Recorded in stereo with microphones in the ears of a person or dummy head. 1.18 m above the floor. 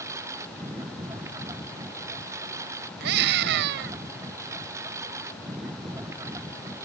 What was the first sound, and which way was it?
A lawn mower, 10° right (ahead or behind).